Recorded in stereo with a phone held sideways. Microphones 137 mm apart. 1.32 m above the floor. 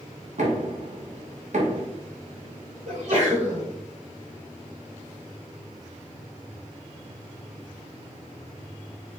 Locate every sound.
0.4 s knocking: 60° right (ahead or behind), 1.2 m
2.9 s a sneeze: 55° right (ahead or behind), 2.0 m